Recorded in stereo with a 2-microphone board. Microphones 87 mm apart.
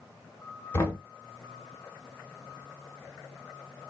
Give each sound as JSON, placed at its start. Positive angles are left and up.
{"t": 0.7, "sound": "knocking", "side_deg": 30, "distance_m": 0.9}